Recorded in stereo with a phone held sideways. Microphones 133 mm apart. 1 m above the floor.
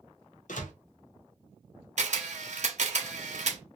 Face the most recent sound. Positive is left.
turn(degrees=-60)  # may be behind; listen again after turning